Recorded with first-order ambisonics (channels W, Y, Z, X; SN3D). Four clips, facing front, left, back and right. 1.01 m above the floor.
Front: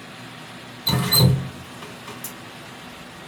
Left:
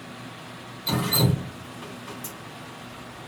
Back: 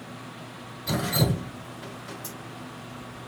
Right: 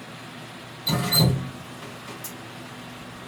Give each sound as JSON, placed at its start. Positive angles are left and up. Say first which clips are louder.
{"t": 0.9, "sound": "dripping", "louder": "right 2 dB, front 7 dB", "azimuth_deg": 0, "distance_m": 3.0}